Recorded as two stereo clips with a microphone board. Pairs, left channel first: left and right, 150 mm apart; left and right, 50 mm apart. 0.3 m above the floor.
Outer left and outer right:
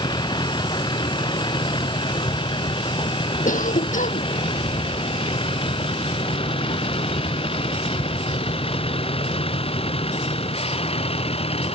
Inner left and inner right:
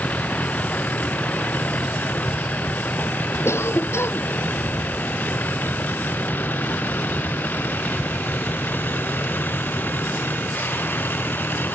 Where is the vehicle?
30° left (ahead or behind); by 11.8 s 40° left (ahead or behind).